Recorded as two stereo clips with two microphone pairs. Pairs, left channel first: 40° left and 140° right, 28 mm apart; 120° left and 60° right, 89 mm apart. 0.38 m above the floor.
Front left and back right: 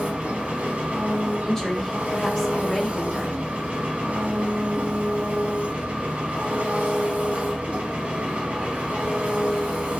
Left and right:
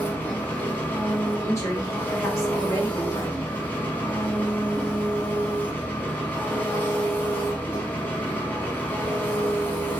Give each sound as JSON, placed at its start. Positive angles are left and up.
{"t": 0.0, "sound": "an engine running", "azimuth_deg": -175, "distance_m": 0.7}
{"t": 1.4, "sound": "a woman speaking", "azimuth_deg": 110, "distance_m": 0.9}